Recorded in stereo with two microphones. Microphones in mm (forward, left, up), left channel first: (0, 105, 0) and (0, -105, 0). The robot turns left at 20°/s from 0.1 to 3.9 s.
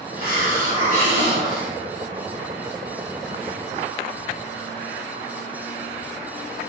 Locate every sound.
0.2 s a hiss: 130° right, 1.7 m; by 1.7 s 160° right, 1.7 m